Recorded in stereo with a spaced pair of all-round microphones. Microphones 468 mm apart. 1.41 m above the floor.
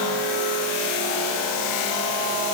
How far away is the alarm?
No alarm in this recording.